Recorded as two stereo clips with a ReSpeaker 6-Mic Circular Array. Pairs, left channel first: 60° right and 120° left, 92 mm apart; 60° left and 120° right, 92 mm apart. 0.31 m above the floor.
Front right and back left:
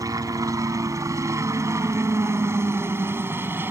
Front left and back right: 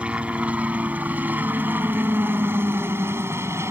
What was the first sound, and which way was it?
A helicopter, 165° left.